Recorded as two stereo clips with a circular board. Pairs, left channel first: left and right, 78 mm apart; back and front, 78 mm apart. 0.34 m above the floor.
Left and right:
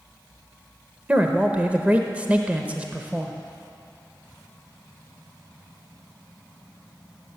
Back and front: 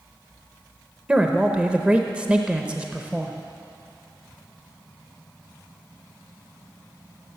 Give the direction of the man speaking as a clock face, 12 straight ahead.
2 o'clock.